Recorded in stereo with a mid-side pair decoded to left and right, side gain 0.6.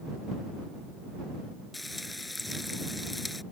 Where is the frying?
10° left.